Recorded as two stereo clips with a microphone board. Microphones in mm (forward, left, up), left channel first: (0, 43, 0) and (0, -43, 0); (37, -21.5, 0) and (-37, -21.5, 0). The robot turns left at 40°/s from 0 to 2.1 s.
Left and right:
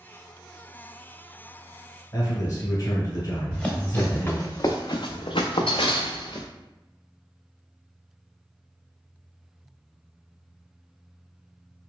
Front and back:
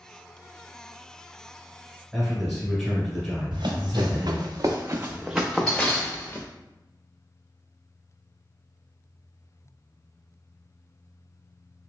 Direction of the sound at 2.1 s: 95° left.